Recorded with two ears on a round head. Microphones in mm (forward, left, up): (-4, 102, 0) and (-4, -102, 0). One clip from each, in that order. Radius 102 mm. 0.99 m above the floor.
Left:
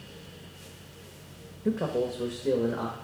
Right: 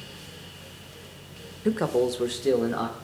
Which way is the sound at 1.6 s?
40° right (ahead or behind).